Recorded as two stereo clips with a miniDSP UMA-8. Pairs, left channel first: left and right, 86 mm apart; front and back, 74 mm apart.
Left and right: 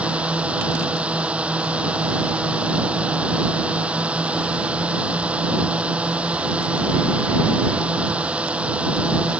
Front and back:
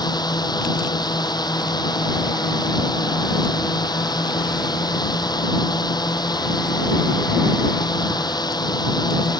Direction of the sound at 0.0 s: 15° right.